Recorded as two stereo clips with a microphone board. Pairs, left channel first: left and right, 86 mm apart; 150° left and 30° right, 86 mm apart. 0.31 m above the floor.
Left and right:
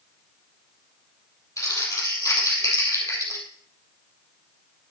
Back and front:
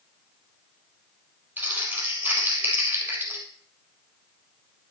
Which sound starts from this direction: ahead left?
Crumpling, at 1.6 s.